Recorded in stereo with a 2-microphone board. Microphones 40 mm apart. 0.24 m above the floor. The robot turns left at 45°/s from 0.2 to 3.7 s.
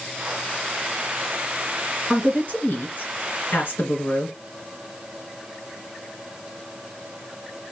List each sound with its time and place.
2.1 s a woman speaking: 155° left, 3 m; by 4.3 s 85° left, 3 m